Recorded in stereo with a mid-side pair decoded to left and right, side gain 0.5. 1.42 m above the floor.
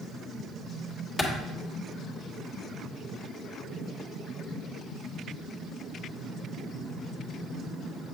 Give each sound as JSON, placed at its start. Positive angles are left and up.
{"t": 1.2, "sound": "a clap", "azimuth_deg": 20, "distance_m": 1.7}